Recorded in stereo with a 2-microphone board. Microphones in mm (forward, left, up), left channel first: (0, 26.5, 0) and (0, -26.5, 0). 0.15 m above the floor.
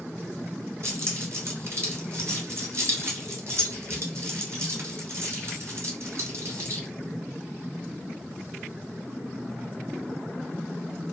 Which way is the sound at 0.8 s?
55° right (ahead or behind).